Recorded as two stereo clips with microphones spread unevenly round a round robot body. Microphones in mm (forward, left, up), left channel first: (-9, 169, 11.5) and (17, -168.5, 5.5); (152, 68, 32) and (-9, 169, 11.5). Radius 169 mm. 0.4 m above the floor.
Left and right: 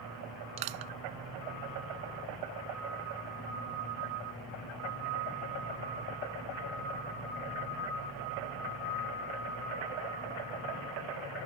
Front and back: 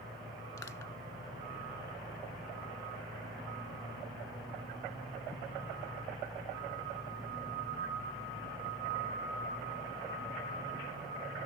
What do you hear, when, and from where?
0.6 s crushing: 115° right